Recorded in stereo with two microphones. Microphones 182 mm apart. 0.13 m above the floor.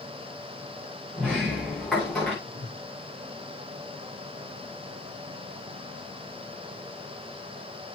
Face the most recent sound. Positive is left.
turn(degrees=-60)  # may be behind; listen again after turning